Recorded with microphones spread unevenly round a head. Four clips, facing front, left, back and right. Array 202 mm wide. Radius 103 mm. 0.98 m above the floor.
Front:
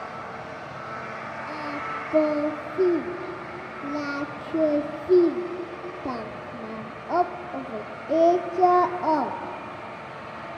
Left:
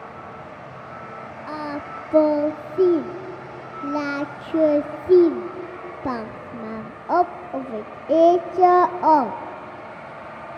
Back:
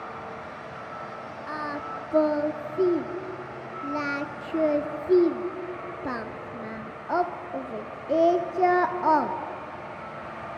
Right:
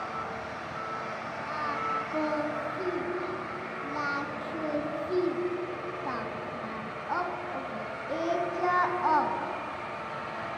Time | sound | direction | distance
1.5 | singing | 95° left | 0.8 m